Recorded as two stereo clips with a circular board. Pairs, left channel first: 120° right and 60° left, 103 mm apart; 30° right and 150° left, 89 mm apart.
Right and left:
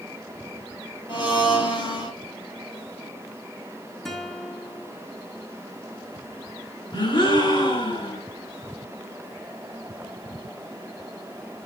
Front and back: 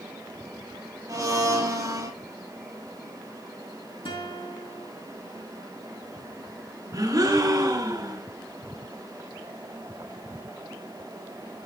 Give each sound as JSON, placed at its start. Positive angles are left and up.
{"t": 1.1, "sound": "a blender", "azimuth_deg": -155, "distance_m": 3.5}
{"t": 4.0, "sound": "a guitar", "azimuth_deg": -35, "distance_m": 3.5}
{"t": 6.9, "sound": "a gasp", "azimuth_deg": -160, "distance_m": 5.0}